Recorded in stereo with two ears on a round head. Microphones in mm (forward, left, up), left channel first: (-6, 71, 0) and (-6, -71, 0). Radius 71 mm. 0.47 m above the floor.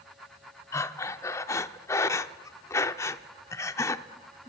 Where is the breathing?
20° left (ahead or behind), 0.6 m.